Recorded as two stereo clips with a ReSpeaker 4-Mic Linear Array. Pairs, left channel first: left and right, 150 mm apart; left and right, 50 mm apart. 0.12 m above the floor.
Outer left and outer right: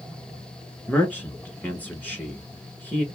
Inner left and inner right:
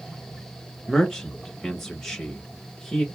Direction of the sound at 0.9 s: 10° left (ahead or behind).